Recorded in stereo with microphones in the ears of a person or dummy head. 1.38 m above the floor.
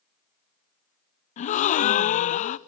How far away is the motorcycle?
I don't hear a motorcycle.